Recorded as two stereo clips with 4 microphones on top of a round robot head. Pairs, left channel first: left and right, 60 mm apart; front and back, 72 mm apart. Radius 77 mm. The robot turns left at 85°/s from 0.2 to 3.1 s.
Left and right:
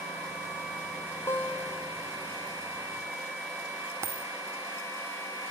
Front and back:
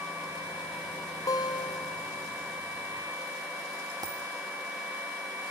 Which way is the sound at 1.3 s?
40° left.